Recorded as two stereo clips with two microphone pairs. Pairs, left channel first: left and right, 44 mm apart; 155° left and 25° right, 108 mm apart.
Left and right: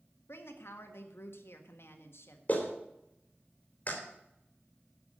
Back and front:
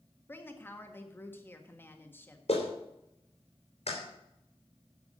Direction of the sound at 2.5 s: 145° left.